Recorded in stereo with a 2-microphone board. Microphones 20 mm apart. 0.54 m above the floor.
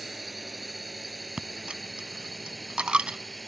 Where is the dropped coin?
55° right (ahead or behind).